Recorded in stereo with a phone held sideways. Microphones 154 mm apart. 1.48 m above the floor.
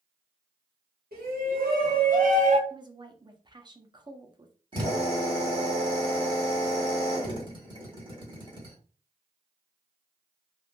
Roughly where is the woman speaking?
Right.